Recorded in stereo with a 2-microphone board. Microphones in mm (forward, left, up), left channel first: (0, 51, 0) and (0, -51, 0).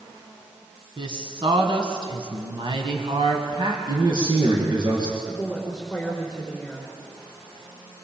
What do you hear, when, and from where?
1.0 s a woman speaking: 55° right (ahead or behind), 2.5 m; by 3.8 s 45° right (ahead or behind), 2.5 m
3.9 s a man speaking: 45° right (ahead or behind), 4.5 m
5.3 s a woman speaking: 5° right (ahead or behind), 3.5 m